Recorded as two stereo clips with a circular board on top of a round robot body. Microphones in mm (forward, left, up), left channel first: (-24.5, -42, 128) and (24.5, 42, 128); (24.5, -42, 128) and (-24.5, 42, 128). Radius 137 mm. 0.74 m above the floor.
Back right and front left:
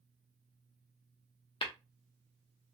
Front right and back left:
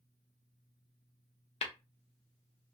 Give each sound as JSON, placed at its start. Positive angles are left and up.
{"t": 1.6, "sound": "tapping", "azimuth_deg": -80, "distance_m": 0.5}